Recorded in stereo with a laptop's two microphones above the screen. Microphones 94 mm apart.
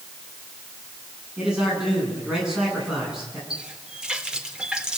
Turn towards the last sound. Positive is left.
turn(degrees=-10)  # may be behind; listen again after turning